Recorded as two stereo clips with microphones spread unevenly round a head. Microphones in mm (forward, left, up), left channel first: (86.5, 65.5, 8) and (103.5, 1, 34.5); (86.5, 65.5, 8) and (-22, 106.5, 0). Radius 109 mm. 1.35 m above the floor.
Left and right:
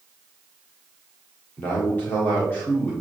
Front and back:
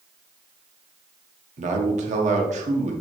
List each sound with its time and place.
1.6 s a man speaking: 170° left, 1.3 m